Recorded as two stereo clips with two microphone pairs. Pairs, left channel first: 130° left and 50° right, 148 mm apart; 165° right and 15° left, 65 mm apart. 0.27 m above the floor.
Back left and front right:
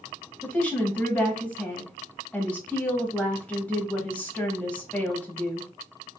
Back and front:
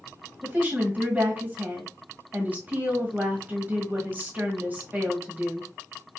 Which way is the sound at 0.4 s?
60° left.